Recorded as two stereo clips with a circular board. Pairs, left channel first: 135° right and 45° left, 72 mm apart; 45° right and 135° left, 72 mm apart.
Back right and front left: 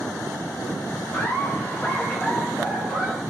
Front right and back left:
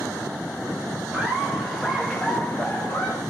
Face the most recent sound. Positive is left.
turn(degrees=-40)